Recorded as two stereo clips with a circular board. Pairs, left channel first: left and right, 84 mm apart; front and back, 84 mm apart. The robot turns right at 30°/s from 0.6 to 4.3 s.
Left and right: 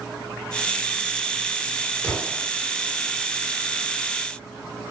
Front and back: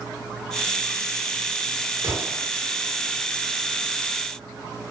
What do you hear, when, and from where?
2.0 s an explosion: 150° left, 1.1 m; by 2.5 s 160° left, 1.1 m